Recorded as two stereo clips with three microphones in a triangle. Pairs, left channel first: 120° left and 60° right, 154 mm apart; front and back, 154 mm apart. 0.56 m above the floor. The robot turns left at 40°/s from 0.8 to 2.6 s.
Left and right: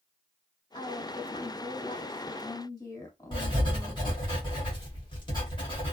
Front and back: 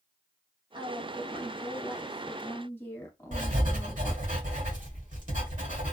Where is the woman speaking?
140° left, 1.4 m; by 4.3 s 70° left, 1.4 m.